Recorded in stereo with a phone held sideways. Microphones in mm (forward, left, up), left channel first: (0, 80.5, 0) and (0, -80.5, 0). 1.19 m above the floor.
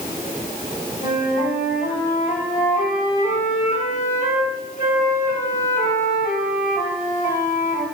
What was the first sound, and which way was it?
A flute, 55° left (ahead or behind).